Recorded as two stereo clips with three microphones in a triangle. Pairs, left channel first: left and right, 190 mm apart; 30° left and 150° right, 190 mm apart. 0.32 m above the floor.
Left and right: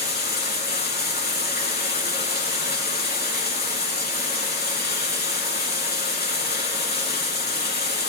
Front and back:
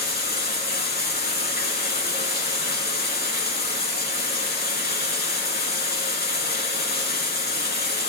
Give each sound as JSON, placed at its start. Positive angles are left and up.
{"t": 0.0, "sound": "running water", "azimuth_deg": 60, "distance_m": 3.5}